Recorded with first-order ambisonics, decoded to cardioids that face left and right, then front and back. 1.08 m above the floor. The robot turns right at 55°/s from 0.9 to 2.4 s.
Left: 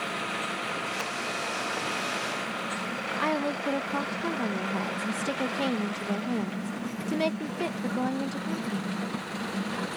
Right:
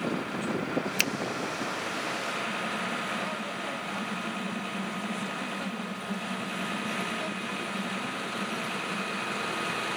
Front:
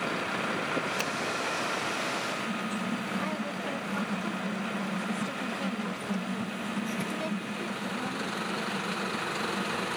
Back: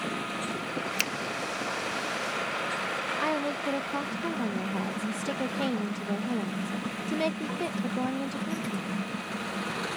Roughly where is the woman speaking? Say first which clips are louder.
Left 5 dB, back 5 dB; behind left.